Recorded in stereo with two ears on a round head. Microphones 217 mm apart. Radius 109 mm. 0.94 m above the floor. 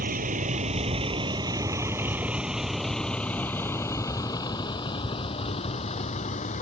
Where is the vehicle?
35° right (ahead or behind); by 6.6 s 30° left (ahead or behind).